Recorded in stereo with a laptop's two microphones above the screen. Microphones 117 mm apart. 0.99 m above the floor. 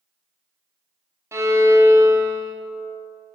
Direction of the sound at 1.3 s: 25° right (ahead or behind).